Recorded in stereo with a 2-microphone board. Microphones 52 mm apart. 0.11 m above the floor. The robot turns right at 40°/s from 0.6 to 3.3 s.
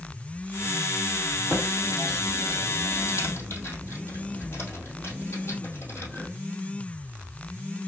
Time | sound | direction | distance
1.5 | typing on a keyboard | 15° right (ahead or behind) | 2.5 m